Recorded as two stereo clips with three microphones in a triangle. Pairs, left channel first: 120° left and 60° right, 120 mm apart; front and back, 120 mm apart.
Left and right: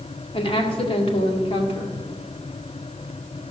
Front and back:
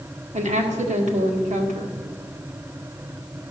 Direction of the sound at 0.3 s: 160° left.